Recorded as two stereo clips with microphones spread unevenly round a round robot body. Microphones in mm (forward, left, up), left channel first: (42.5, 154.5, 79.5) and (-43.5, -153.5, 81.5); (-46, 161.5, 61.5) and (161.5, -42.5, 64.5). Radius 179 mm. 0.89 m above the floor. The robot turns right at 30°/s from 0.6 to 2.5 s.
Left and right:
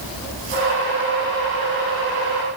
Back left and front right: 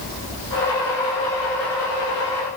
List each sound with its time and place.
Only background noise.